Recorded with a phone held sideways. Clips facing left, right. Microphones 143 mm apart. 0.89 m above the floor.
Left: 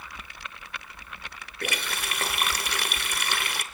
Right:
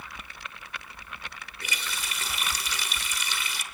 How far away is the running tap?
About 2.0 m.